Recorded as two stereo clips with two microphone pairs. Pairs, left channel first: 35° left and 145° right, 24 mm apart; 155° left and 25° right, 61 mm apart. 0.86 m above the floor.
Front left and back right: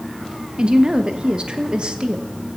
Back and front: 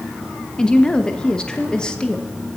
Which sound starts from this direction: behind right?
A woman speaking, at 0.6 s.